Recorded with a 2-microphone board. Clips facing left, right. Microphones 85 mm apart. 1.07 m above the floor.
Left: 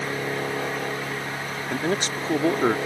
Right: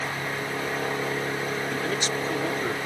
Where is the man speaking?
35° left (ahead or behind); by 2.8 s 50° left (ahead or behind).